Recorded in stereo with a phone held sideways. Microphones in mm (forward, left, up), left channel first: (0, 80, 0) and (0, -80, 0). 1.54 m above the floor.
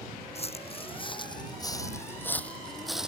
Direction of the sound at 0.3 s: 40° left (ahead or behind).